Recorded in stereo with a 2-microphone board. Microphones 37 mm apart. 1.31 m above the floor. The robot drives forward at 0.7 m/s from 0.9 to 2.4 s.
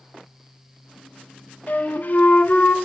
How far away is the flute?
About 0.9 m.